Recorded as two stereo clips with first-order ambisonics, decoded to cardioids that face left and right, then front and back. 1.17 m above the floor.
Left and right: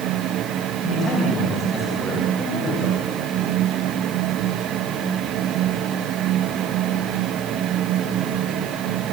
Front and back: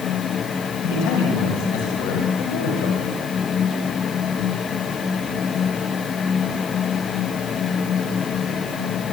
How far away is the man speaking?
About 6 m.